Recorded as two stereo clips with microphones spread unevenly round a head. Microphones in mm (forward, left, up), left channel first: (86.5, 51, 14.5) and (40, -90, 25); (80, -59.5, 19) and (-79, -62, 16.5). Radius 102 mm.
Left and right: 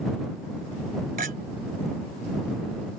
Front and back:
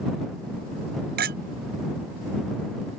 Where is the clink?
160° right.